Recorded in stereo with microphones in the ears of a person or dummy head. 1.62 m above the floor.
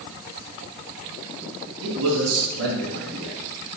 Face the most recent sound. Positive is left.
turn(degrees=-85)